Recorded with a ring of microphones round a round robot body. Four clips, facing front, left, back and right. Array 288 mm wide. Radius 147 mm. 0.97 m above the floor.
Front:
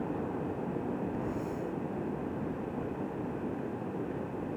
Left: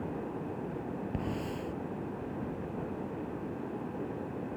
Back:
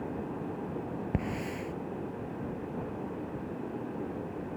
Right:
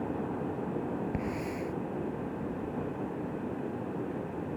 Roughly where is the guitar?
I don't hear a guitar.